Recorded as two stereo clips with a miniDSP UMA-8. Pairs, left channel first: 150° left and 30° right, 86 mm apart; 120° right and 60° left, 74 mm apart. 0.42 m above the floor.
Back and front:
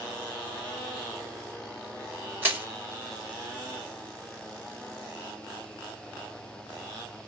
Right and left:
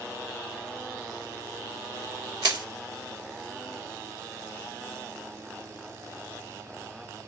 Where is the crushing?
35° left, 1.1 m.